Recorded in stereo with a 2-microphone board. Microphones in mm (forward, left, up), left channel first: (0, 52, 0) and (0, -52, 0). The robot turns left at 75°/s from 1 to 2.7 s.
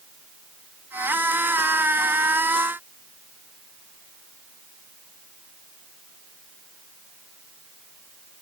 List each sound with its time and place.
Only background noise.